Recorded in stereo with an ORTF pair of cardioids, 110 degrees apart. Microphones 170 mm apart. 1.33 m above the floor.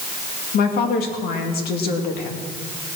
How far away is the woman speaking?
About 2.5 m.